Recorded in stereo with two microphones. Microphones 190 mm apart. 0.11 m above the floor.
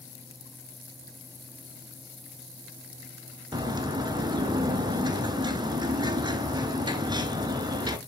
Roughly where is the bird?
Right.